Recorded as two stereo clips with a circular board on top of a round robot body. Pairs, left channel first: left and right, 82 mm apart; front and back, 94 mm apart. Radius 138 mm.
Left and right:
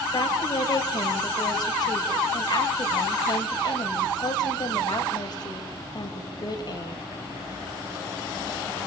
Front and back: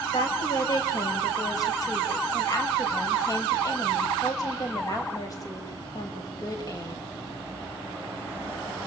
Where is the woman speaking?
55° left, 6 m.